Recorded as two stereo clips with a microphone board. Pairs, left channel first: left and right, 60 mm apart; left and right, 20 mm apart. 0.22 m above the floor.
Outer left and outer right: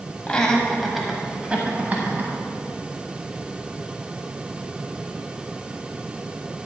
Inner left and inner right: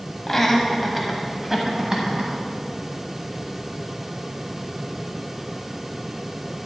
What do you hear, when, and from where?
0.3 s laughter: 15° left (ahead or behind), 1.4 m; by 2.3 s 40° right (ahead or behind), 1.7 m